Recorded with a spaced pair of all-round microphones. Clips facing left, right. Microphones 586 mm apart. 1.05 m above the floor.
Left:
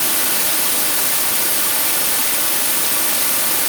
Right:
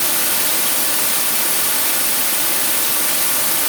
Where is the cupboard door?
No cupboard door in this recording.